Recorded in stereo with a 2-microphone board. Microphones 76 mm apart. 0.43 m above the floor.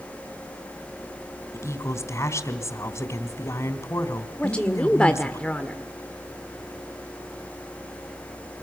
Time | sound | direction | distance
1.5 | a woman speaking | 40° left (ahead or behind) | 3 m
4.4 | a woman speaking | 15° left (ahead or behind) | 1.4 m